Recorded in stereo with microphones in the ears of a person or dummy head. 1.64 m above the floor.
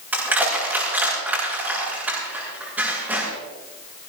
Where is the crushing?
10° right (ahead or behind), 8 m.